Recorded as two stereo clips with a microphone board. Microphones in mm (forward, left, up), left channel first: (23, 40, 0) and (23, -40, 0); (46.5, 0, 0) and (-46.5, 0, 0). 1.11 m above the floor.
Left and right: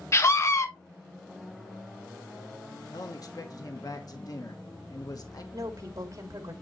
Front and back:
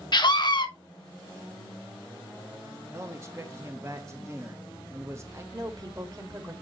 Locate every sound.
0.1 s a scream: 35° left, 1.3 m
2.9 s a man speaking: 125° left, 1.1 m
5.5 s a woman speaking: 135° right, 2 m